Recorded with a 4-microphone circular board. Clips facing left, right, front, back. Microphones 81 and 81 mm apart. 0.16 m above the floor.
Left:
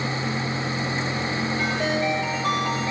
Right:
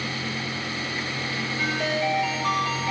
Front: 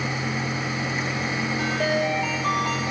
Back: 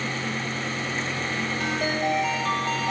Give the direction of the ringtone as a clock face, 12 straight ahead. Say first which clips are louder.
Even, front 3 dB; 11 o'clock.